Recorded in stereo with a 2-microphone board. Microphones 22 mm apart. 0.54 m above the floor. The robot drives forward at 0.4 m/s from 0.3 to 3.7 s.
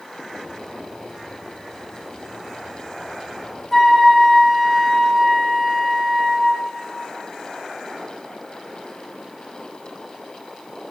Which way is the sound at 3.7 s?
15° left (ahead or behind).